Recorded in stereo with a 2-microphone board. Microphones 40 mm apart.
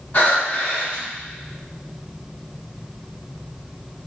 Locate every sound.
0.1 s breathing: 55° left (ahead or behind), 1.8 m